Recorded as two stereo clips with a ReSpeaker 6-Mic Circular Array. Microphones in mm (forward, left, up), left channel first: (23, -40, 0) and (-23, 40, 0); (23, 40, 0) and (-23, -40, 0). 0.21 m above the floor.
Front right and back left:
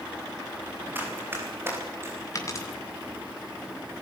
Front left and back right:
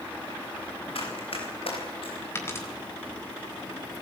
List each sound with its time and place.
0.9 s running footsteps: 50° left, 10 m; by 2.2 s 55° left, 10 m
2.4 s a dropped coin: 5° right, 5 m